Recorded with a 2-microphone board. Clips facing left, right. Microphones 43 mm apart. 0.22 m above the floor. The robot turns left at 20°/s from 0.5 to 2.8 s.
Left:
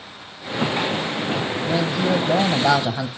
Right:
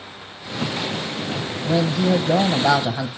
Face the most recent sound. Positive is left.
turn(degrees=0)  # may be behind; listen again after turning